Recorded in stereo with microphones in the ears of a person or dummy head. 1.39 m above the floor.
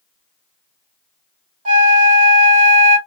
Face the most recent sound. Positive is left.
turn(degrees=-45)  # may be behind; listen again after turning